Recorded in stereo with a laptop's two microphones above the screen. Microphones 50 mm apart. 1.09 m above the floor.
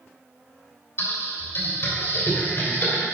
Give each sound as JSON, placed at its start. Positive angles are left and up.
{"t": 1.0, "sound": "typing on a keyboard", "side_deg": 50, "distance_m": 3.0}